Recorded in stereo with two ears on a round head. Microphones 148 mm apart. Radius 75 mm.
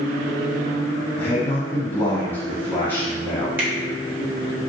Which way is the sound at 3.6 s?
10° right (ahead or behind).